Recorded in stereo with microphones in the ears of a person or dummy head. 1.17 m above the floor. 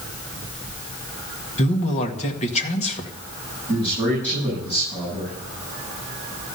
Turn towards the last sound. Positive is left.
turn(degrees=10)  # may be behind; listen again after turning